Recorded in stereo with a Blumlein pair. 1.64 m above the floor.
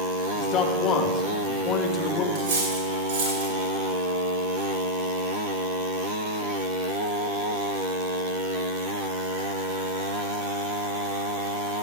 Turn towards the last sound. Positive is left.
turn(degrees=-45)